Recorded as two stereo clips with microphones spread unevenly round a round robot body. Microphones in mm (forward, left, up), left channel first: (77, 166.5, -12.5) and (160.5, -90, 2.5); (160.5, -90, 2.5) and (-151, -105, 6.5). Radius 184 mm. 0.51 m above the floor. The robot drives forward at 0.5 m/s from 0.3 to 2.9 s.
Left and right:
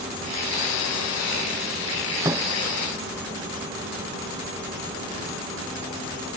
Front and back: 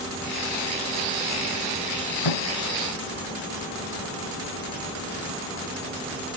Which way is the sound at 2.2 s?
5° left.